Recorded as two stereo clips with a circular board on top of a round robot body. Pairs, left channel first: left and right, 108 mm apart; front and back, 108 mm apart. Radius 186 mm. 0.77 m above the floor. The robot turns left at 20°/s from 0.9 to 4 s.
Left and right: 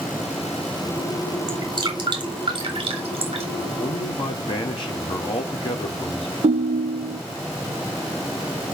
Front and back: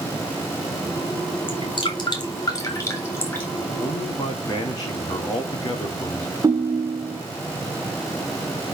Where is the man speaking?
55° left, 2.5 m; by 6.3 s 50° left, 2.5 m.